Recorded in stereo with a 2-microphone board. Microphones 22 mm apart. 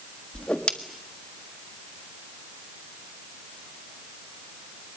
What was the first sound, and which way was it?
A whoosh, 55° left (ahead or behind).